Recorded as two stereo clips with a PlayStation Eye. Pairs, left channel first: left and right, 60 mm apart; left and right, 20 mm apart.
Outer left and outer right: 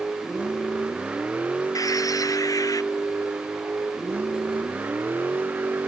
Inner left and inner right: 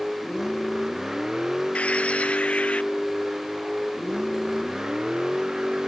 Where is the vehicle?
20° right (ahead or behind); by 5.9 s 35° right (ahead or behind).